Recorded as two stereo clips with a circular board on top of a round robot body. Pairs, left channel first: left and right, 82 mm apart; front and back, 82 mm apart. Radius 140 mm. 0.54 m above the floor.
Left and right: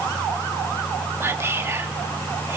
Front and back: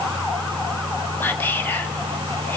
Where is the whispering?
50° right, 1.4 m.